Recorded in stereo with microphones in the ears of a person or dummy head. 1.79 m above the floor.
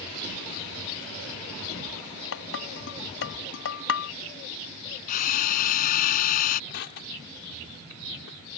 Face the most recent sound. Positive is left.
turn(degrees=65)  # may be behind; listen again after turning